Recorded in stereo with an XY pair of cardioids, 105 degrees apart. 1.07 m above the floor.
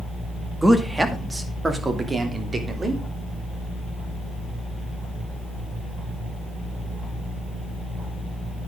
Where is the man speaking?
10° right, 2 m; by 3.0 s 30° right, 3.5 m.